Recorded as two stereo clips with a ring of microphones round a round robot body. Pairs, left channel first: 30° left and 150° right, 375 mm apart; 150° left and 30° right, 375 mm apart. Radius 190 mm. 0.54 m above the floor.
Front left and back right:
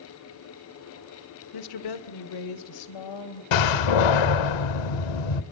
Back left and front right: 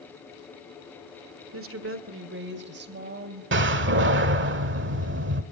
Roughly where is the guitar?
I don't hear a guitar.